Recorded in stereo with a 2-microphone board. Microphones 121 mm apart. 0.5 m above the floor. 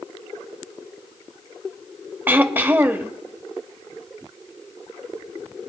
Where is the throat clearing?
15° right (ahead or behind), 0.7 m.